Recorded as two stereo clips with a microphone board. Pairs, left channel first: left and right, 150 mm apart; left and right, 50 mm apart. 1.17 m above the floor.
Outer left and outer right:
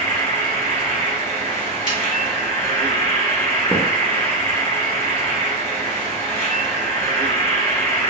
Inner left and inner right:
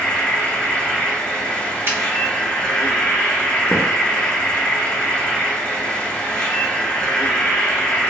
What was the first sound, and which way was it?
An insect, 15° left (ahead or behind).